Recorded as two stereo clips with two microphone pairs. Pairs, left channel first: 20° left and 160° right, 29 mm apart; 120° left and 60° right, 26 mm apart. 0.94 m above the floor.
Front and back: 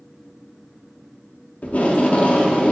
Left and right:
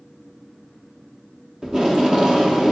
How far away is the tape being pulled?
About 0.6 m.